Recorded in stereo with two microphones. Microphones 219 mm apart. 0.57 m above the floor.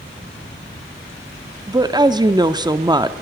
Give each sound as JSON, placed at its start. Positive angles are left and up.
{"t": 1.7, "sound": "a woman speaking", "side_deg": -20, "distance_m": 0.8}